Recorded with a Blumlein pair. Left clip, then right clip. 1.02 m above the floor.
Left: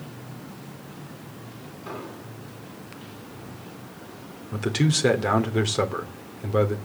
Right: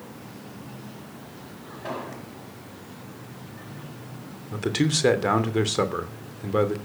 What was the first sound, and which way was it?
An explosion, 35° right.